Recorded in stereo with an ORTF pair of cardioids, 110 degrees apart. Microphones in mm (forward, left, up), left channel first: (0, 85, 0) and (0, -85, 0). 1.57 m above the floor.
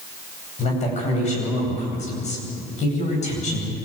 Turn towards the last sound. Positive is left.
turn(degrees=45)